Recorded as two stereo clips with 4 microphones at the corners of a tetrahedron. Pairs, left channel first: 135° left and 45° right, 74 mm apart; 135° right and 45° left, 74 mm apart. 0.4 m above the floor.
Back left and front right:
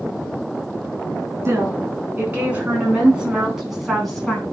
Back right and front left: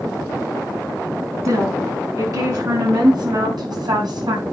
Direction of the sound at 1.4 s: 10° left.